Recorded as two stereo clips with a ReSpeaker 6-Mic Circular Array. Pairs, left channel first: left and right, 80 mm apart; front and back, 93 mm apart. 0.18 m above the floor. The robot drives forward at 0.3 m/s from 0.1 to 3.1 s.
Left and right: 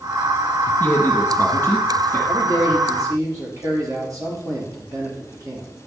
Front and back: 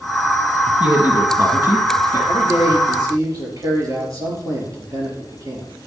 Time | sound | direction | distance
0.8 | a man speaking | 125° left | 1.8 m
2.3 | a man speaking | 130° right | 3.5 m